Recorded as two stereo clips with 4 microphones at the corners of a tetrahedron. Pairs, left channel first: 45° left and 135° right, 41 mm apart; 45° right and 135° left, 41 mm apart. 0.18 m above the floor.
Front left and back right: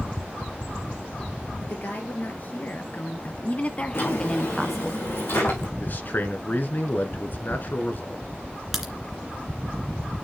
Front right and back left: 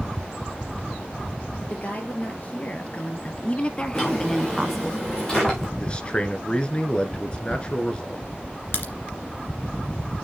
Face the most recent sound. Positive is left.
turn(degrees=-50)